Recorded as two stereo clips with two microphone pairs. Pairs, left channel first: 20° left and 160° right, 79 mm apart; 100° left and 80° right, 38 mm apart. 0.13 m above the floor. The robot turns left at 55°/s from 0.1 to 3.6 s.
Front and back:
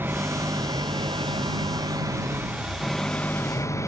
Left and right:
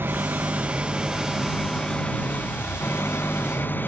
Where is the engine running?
100° right; by 3.9 s 70° left.